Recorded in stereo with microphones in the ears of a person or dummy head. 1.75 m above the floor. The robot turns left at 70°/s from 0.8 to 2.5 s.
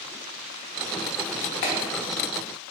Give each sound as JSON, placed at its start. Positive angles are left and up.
{"t": 1.6, "sound": "a clap", "side_deg": 45, "distance_m": 0.5}